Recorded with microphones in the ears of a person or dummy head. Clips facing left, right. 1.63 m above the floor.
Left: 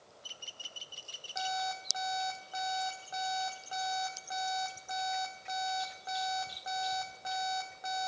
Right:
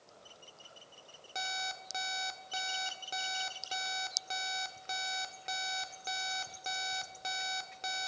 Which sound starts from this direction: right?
An alarm clock, at 1.4 s.